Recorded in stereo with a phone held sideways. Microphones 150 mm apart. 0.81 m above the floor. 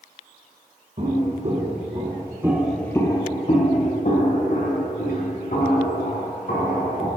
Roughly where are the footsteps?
Right.